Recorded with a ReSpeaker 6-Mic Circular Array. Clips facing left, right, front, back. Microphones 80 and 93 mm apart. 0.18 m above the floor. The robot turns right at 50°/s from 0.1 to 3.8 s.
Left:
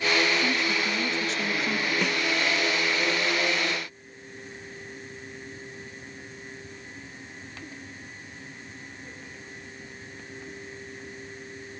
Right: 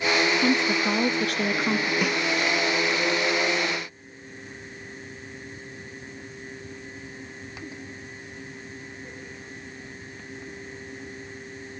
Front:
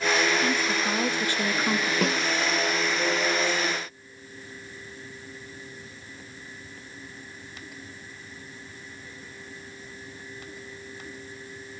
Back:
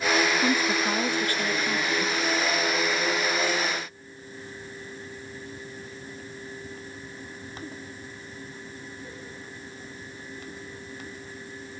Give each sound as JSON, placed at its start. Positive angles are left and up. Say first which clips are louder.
{"t": 0.4, "sound": "a woman speaking", "louder": "right 4 dB, back 1 dB", "azimuth_deg": -110, "distance_m": 3.0}
{"t": 2.0, "sound": "a snare drum", "louder": "right 2 dB, front 2 dB", "azimuth_deg": -5, "distance_m": 0.9}